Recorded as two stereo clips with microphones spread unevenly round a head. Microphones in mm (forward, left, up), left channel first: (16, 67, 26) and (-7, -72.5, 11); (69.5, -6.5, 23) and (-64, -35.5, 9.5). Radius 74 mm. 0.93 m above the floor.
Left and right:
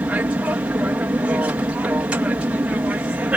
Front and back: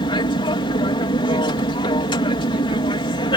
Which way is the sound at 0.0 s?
30° right.